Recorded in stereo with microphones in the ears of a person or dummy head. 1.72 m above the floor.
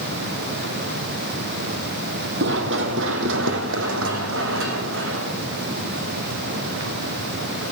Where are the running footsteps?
55° right (ahead or behind), 3.5 m; by 6.9 s 75° right (ahead or behind), 9 m.